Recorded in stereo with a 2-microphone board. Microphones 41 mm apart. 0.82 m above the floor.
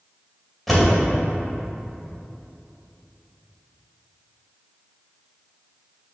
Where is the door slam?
5° left (ahead or behind), 2.5 m.